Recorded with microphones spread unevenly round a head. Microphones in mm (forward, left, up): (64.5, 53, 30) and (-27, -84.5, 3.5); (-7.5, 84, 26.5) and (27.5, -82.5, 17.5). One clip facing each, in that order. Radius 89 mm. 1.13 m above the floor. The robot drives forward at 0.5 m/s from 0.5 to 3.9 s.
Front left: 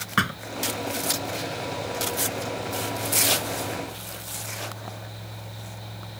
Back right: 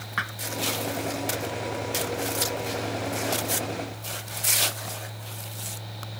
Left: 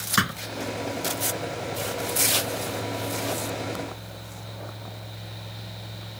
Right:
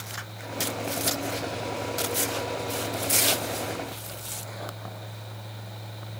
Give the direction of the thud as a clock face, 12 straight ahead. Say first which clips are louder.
Front left 10 dB, left 14 dB; 9 o'clock.